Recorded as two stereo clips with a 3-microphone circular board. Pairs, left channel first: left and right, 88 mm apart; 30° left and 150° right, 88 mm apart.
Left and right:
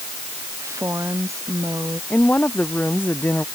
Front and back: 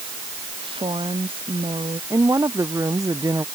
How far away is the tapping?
I don't hear tapping.